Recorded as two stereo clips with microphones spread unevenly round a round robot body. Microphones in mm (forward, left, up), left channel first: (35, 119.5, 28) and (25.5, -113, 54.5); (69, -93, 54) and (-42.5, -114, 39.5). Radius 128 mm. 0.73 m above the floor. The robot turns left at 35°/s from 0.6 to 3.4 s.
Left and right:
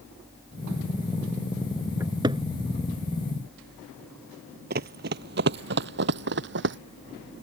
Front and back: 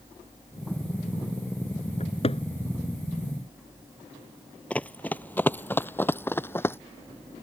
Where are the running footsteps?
60° right; by 6.8 s 55° right.